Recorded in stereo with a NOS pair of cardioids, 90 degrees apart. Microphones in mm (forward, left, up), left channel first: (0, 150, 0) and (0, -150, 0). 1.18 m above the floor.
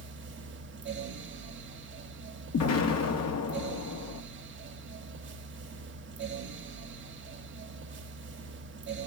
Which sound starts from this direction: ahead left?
An explosion, at 2.5 s.